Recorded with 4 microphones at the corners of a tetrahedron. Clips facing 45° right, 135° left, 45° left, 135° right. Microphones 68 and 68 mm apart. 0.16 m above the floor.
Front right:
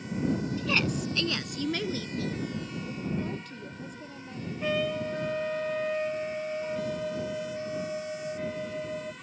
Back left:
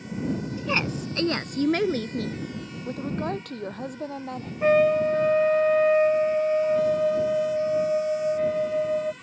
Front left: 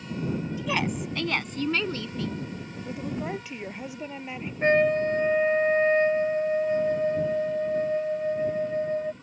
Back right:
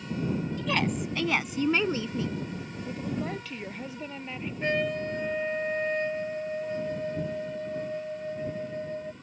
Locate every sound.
0.6 s a woman speaking: 110° left; by 2.4 s 155° left
2.9 s a woman speaking: 120° left
4.6 s a trumpet: 95° left